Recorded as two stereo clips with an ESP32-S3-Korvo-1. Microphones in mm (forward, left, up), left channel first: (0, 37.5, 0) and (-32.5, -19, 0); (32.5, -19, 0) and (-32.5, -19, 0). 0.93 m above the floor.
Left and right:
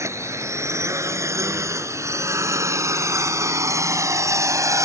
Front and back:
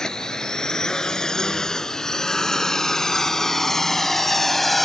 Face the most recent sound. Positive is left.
turn(degrees=-90)